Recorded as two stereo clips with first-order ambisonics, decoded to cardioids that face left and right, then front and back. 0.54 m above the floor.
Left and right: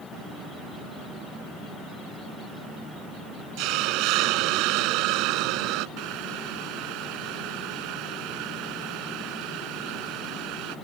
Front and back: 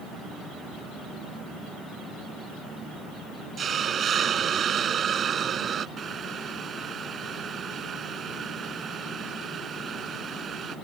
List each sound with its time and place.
3.6 s a hiss: 115° right
6.0 s boiling: 115° right